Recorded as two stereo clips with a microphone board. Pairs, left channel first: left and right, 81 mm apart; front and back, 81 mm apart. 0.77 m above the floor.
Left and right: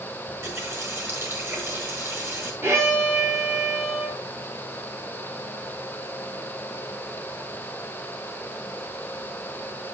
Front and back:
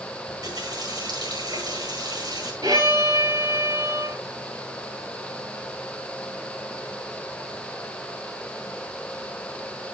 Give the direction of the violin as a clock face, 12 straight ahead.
5 o'clock.